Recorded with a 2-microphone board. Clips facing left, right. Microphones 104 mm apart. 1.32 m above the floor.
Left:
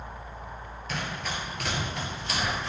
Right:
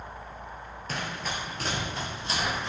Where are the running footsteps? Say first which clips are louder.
Even; 40° right (ahead or behind), 1.6 m; by 2.7 s 20° right (ahead or behind), 1.7 m.